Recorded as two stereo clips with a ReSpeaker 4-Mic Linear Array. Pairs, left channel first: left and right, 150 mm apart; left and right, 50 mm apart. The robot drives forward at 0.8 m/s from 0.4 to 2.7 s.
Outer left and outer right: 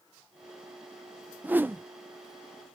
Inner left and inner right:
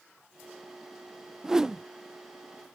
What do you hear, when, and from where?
1.4 s a whoosh: 10° right (ahead or behind); by 1.8 s 15° right (ahead or behind)